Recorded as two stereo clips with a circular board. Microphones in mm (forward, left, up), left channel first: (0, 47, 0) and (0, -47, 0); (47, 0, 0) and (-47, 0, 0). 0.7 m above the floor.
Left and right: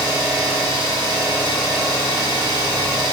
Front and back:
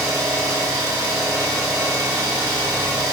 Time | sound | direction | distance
0.0 | an engine running | 130° right | 1.5 m